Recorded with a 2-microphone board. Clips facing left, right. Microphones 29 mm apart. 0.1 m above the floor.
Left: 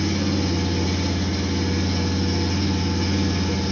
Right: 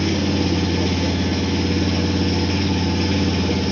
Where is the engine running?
60° right (ahead or behind), 0.8 m.